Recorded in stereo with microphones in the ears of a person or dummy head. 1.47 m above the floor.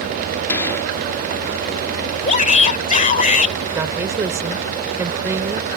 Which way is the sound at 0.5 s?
10° left (ahead or behind).